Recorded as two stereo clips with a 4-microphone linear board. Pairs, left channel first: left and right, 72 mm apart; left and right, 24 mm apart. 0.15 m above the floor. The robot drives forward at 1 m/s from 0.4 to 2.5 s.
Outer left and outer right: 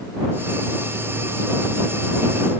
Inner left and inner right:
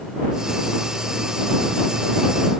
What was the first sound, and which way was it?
Only background noise.